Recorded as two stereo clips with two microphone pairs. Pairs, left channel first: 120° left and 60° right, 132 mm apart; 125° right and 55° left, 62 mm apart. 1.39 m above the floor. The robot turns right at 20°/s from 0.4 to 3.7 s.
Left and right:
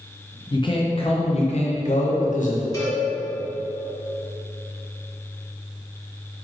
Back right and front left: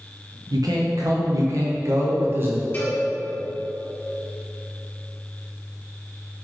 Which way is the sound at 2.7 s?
175° left.